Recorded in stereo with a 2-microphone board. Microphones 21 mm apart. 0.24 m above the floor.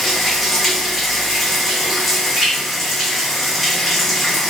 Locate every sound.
0.0 s running water: 5° left (ahead or behind), 1.0 m